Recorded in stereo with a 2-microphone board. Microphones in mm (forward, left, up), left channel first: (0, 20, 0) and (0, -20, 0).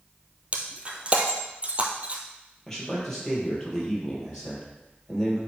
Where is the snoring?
I don't hear snoring.